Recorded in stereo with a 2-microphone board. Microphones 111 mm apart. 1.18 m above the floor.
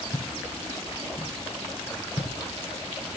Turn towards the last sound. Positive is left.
turn(degrees=45)  # may be behind; listen again after turning